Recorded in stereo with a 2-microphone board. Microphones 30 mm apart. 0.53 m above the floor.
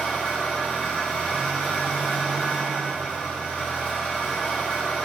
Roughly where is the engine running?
Left.